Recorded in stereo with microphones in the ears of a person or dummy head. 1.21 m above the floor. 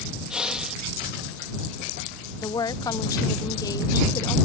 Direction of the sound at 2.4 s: 15° left (ahead or behind).